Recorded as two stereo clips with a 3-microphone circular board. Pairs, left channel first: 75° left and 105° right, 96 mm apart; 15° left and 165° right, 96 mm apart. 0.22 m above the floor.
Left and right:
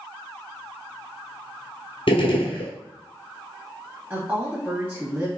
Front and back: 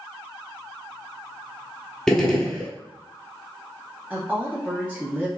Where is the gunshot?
100° left, 0.8 m.